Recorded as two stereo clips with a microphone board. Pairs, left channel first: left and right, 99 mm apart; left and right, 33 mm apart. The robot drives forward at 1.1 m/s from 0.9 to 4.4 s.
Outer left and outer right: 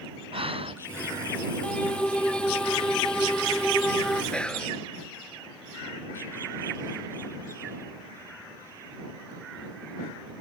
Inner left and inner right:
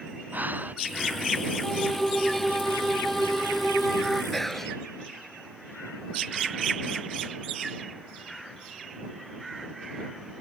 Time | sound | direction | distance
0.3 | breathing | 65° right (ahead or behind) | ?
1.6 | a violin | 10° left (ahead or behind) | ?
4.3 | whispering | 10° left (ahead or behind) | ?